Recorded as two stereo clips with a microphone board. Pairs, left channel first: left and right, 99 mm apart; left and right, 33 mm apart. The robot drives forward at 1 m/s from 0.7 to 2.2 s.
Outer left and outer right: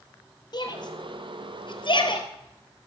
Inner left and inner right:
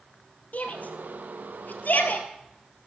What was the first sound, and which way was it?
A shout, 45° left (ahead or behind).